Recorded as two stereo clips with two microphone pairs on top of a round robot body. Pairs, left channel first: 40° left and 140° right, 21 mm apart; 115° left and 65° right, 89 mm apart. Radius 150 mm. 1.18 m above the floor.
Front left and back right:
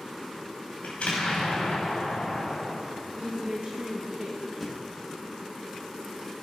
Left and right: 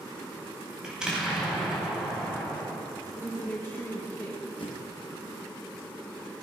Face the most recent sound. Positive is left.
turn(degrees=135)